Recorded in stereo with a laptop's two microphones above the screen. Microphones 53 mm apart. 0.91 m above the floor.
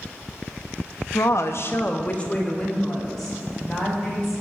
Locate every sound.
1.1 s a woman speaking: 70° left (ahead or behind), 0.8 m; by 4.3 s 5° left (ahead or behind), 3.5 m